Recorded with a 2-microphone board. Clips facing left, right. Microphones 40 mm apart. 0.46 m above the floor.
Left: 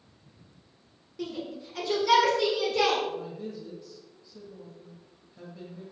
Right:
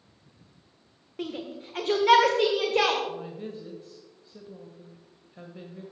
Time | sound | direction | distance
1.2 | a shout | 35° right (ahead or behind) | 1.5 m
3.1 | a woman speaking | 35° right (ahead or behind) | 1.8 m